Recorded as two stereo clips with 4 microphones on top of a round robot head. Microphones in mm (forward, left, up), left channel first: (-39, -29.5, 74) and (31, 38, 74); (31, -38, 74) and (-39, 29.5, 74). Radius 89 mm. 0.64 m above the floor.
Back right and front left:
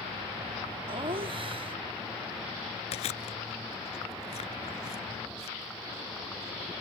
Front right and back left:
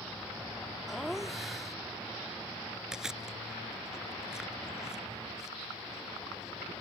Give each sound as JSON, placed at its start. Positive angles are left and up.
{"t": 0.9, "sound": "laughter", "azimuth_deg": 45}
{"t": 2.9, "sound": "chewing", "azimuth_deg": -140}